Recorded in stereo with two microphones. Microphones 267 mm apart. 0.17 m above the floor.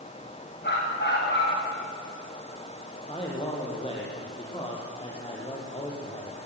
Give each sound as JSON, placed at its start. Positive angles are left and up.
{"t": 0.6, "sound": "a dog barking", "side_deg": 40, "distance_m": 9.0}
{"t": 3.0, "sound": "a man speaking", "side_deg": 20, "distance_m": 6.5}